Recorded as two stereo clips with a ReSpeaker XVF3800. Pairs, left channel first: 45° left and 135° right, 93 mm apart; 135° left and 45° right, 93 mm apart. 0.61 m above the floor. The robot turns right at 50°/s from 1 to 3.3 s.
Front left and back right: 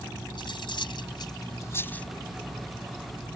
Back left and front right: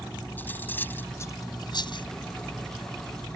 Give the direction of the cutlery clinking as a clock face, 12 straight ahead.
10 o'clock.